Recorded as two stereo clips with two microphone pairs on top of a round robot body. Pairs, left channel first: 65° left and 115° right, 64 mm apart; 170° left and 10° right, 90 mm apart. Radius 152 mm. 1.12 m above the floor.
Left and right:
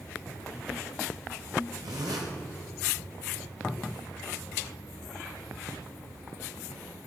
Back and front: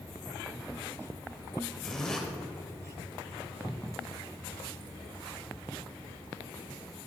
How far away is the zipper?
About 1.2 m.